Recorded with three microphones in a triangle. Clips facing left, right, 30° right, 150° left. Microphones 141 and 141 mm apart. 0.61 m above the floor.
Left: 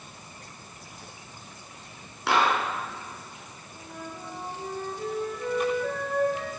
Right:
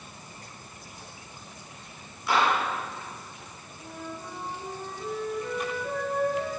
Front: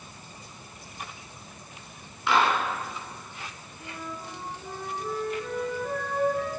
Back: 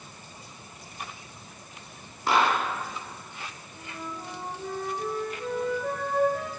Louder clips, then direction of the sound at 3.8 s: Right 1 dB, even; 115° left.